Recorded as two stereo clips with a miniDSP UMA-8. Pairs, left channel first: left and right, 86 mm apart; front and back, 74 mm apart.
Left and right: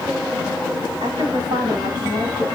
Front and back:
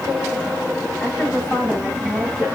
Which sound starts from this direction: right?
A woman speaking, at 1.0 s.